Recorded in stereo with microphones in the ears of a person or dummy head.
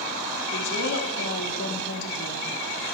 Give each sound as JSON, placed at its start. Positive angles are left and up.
{"t": 0.5, "sound": "a woman speaking", "side_deg": 65, "distance_m": 3.5}